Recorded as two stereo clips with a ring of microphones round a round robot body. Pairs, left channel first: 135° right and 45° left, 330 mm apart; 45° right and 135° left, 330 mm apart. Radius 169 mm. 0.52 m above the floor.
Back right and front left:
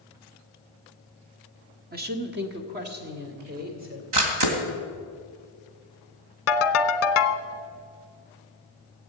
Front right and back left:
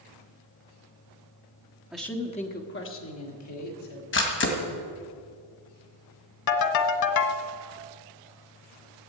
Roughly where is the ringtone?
Right.